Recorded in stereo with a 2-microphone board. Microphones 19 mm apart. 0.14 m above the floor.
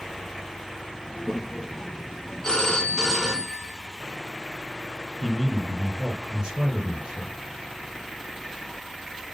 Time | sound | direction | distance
1.1 | a child speaking | 10° left (ahead or behind) | 2.5 m
2.4 | a phone ringing | 30° left (ahead or behind) | 1.2 m
5.2 | a man speaking | 55° right (ahead or behind) | 3.5 m